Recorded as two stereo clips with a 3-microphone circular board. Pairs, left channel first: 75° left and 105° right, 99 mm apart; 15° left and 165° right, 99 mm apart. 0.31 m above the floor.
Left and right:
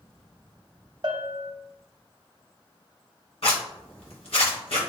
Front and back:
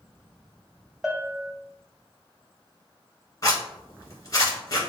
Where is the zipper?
70° left, 1.7 m.